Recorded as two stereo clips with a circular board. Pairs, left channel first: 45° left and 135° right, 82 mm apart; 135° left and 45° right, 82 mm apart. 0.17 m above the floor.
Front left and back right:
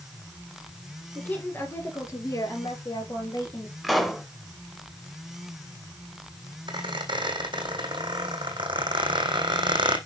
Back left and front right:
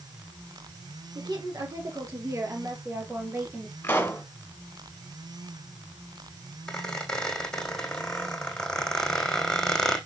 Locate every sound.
1.1 s a woman speaking: 20° right, 3 m; by 3.7 s 30° left, 3.5 m
3.8 s a pop: 140° left, 1.4 m
6.7 s a squeak: 145° right, 2 m